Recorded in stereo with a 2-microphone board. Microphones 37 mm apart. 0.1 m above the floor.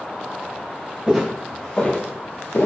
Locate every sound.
1.1 s footsteps: 10° right (ahead or behind), 0.8 m; by 2.7 s 70° left (ahead or behind), 0.8 m